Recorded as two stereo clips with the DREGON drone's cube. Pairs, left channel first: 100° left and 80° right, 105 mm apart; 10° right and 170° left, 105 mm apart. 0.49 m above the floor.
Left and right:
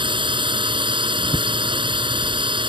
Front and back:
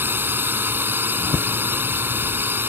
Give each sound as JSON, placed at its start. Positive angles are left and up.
{"t": 0.0, "sound": "a drone", "azimuth_deg": -120}